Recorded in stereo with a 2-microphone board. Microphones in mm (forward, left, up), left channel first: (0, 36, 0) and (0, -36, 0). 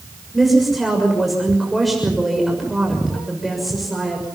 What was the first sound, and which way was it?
A woman speaking, centre (ahead or behind).